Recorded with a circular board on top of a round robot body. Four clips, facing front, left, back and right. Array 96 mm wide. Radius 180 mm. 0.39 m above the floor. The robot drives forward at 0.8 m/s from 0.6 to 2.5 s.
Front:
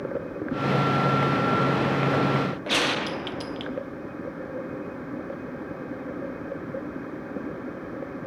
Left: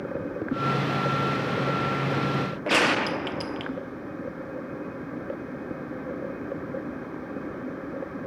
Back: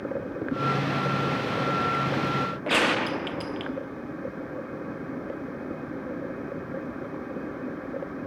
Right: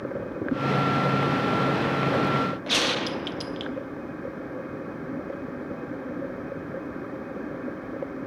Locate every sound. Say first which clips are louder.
2.7 s a gunshot: left 4 dB, back 2 dB; 115° left, 1.2 m